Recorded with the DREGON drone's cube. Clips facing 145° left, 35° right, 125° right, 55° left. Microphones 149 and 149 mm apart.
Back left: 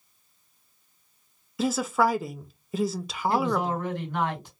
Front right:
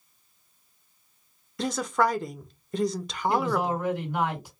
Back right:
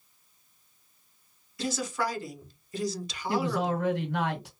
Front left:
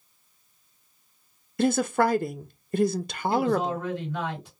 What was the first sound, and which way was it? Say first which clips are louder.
A woman speaking: back left 2 dB, front left 9 dB; 60° left.